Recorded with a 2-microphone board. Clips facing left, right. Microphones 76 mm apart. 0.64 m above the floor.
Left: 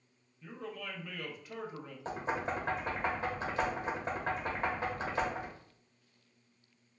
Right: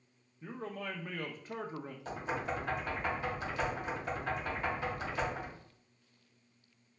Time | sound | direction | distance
0.4 | a man speaking | 40° right (ahead or behind) | 0.7 m
2.0 | knocking | 35° left (ahead or behind) | 1.1 m